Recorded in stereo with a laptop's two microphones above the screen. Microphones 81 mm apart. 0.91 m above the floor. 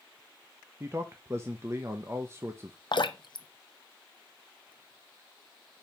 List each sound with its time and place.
0.8 s a man speaking: 35° right (ahead or behind), 0.7 m
2.9 s dripping: 60° left (ahead or behind), 0.6 m